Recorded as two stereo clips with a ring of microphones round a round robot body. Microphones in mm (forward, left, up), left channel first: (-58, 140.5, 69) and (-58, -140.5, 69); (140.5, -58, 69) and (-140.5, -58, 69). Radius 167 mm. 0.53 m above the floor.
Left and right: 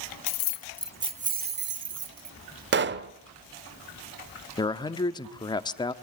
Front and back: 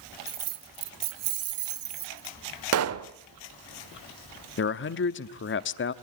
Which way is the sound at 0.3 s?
100° left.